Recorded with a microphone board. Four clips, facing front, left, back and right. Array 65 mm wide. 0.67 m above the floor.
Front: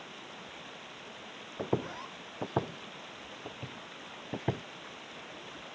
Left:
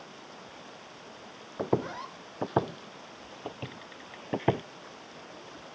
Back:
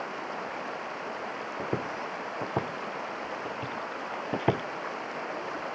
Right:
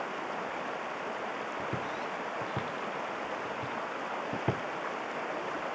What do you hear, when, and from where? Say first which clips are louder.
0.0 s running water: right 12 dB, back 12 dB; 140° right
1.6 s footsteps: left 10 dB, even; 85° left; by 4.6 s 145° left